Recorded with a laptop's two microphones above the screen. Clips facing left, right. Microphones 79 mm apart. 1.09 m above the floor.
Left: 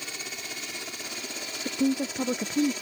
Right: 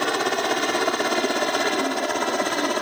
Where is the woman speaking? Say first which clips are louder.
Right 4 dB; 25° left (ahead or behind).